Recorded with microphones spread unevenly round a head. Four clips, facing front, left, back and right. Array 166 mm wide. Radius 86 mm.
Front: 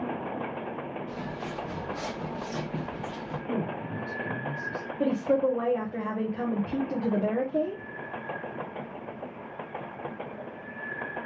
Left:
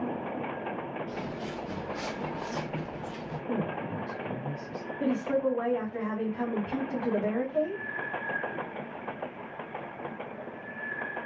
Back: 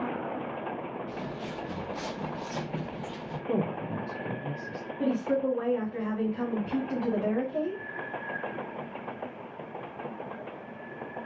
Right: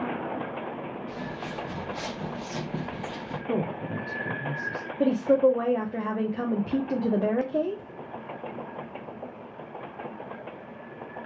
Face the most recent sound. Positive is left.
turn(degrees=-80)